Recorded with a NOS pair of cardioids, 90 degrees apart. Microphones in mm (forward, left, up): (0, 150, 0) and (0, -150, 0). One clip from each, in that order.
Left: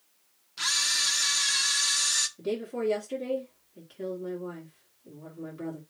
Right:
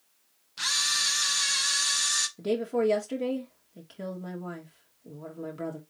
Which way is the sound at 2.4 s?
45° right.